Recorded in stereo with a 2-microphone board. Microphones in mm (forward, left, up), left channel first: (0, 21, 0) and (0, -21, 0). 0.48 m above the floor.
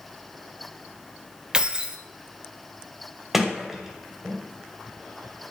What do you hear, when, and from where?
1.5 s keys jangling: 20° right (ahead or behind), 1.1 m
3.3 s a sliding door: 10° right (ahead or behind), 2 m